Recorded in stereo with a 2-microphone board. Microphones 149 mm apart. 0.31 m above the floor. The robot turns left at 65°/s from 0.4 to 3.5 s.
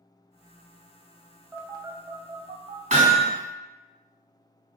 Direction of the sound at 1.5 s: 15° right (ahead or behind).